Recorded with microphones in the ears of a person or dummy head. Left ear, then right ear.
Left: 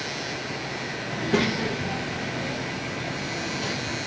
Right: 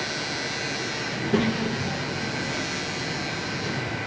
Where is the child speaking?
15° left (ahead or behind), 1.0 m; by 4.0 s 40° left (ahead or behind), 3 m.